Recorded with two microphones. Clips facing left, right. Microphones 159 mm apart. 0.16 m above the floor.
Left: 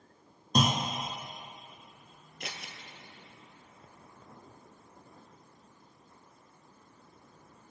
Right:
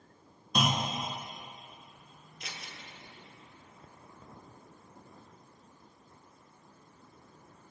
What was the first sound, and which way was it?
A clunk, 40° left (ahead or behind).